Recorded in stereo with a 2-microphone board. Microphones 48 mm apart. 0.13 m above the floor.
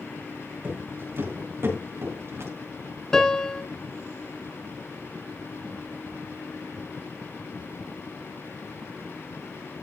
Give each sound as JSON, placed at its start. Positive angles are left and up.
{"t": 0.6, "sound": "footsteps", "side_deg": -45, "distance_m": 5.5}
{"t": 3.1, "sound": "a piano", "side_deg": 10, "distance_m": 0.9}